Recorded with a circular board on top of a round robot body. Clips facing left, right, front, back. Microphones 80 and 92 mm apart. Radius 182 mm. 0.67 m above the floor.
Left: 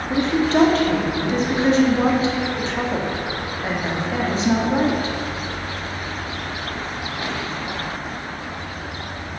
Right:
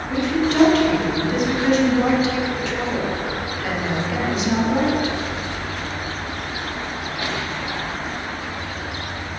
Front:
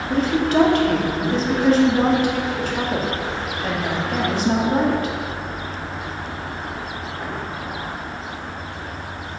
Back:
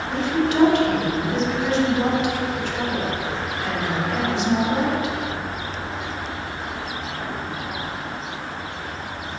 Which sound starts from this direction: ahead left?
A woman speaking, at 0.1 s.